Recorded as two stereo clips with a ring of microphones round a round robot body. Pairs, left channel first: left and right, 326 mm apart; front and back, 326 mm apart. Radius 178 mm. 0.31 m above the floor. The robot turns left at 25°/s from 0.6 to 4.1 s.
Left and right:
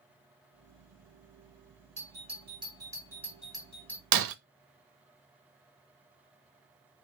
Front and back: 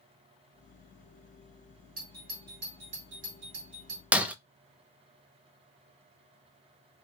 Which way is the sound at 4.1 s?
95° right.